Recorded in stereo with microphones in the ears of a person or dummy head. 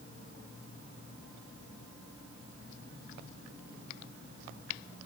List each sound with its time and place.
Only background noise.